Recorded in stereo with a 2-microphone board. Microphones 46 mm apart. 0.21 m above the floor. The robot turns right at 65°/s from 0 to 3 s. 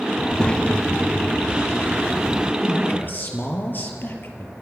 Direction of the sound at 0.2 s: 20° left (ahead or behind).